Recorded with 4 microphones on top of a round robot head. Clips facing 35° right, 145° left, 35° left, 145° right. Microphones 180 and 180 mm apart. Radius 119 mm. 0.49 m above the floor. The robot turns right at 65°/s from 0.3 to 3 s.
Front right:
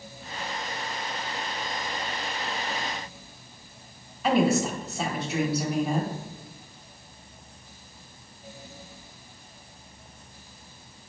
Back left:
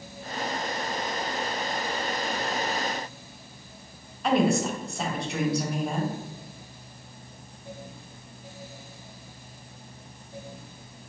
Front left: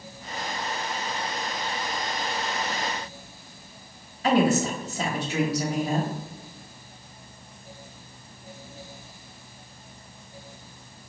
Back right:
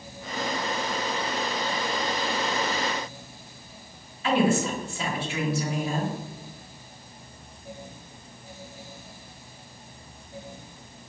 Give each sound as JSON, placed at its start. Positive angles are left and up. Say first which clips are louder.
{"t": 4.2, "sound": "a woman speaking", "louder": "even, front left 2 dB", "azimuth_deg": 55, "distance_m": 1.1}